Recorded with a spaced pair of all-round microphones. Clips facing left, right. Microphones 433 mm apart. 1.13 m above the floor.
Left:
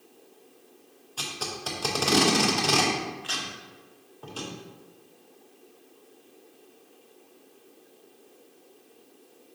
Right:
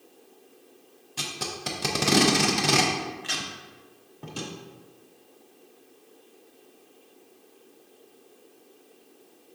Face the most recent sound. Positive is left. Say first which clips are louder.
# right 1 dB
turn(degrees=-40)  # may be behind; listen again after turning